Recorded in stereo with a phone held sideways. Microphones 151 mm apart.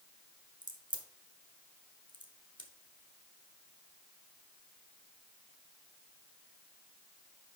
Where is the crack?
30° right (ahead or behind), 1.0 m.